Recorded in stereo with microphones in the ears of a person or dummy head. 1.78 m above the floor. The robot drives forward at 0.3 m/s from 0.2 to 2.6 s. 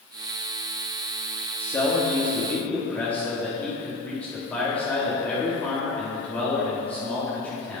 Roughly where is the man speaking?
Centre.